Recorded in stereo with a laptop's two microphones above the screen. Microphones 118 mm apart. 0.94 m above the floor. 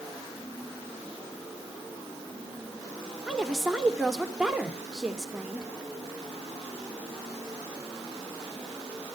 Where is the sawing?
I don't hear sawing.